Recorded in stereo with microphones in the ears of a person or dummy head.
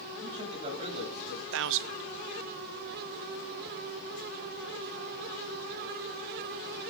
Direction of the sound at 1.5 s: 75° right (ahead or behind).